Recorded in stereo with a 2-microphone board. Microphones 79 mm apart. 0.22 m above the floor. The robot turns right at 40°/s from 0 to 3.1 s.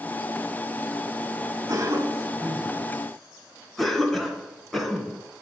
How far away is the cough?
About 2.5 m.